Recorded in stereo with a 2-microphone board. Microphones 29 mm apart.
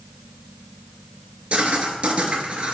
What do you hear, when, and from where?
1.5 s writing: 45° right (ahead or behind), 0.8 m